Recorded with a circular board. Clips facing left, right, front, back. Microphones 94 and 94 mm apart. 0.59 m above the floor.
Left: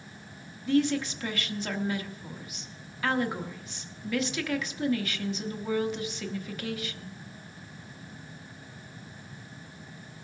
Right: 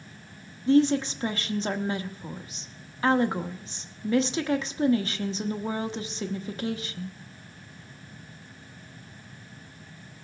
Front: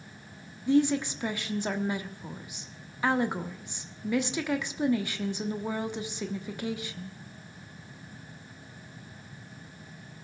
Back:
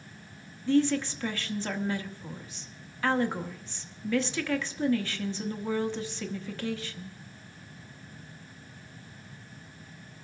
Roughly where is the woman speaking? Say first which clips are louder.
Right 5 dB, front 1 dB; ahead right.